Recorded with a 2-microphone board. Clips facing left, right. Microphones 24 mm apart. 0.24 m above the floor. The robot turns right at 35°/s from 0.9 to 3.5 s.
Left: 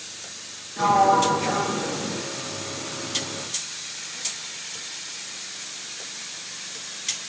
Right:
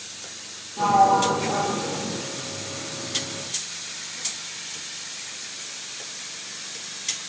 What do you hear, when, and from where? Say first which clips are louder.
0.8 s a sliding door: even; 55° left, 1.8 m; by 2.2 s 100° left, 1.8 m